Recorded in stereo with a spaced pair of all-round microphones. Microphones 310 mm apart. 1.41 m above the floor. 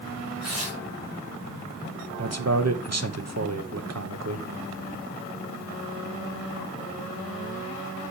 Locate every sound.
0.4 s tearing paper: 55° right (ahead or behind), 1.6 m
2.2 s a man speaking: 55° right (ahead or behind), 0.9 m